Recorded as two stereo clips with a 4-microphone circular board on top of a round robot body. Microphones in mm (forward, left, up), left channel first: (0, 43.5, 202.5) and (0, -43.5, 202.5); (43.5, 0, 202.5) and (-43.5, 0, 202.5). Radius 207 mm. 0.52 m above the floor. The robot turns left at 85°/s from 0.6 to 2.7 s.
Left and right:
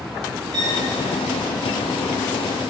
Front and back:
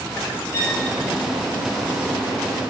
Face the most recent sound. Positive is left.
turn(degrees=120)